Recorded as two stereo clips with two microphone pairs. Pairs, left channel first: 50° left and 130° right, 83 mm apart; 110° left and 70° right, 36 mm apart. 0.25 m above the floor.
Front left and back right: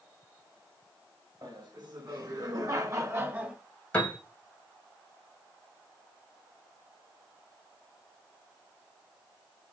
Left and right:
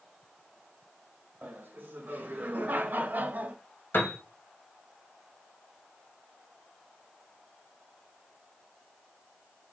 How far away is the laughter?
About 3.5 m.